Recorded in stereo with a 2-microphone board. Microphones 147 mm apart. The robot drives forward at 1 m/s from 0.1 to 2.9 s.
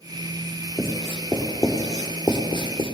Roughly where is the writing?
Centre.